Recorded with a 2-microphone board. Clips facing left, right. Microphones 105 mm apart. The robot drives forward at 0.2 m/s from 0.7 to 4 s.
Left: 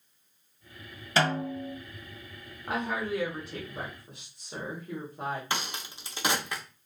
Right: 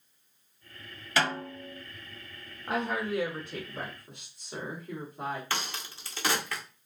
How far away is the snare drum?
About 1.5 m.